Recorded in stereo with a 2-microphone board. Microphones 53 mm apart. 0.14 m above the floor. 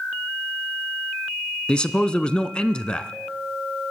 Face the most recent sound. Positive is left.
turn(degrees=15)  # may be behind; listen again after turning